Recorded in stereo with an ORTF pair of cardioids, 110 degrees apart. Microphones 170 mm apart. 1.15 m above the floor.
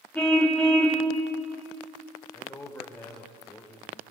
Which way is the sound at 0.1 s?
5° left.